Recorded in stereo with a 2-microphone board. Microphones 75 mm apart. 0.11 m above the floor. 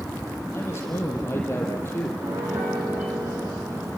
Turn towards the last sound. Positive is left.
turn(degrees=-40)  # may be behind; listen again after turning